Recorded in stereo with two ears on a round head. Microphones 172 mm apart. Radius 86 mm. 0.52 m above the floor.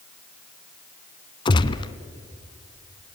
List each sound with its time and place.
1.4 s a gunshot: 25° left (ahead or behind), 0.9 m